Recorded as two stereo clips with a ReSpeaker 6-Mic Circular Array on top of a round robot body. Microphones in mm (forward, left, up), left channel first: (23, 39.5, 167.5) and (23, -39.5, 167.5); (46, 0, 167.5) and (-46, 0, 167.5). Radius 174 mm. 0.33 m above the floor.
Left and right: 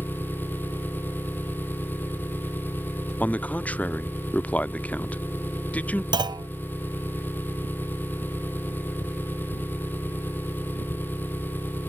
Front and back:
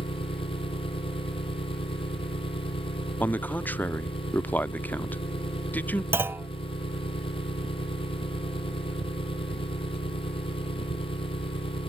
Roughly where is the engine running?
Ahead left.